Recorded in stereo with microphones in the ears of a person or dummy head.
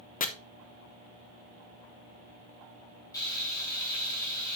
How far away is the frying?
About 2 m.